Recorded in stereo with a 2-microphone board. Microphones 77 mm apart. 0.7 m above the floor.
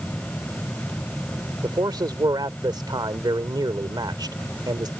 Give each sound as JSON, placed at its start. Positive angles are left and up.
{"t": 1.6, "sound": "a man speaking", "side_deg": -70}